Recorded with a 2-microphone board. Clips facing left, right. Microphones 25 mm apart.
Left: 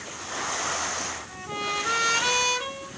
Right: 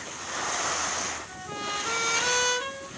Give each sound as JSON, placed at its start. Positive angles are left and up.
{"t": 1.3, "sound": "a trumpet", "side_deg": 20, "distance_m": 1.9}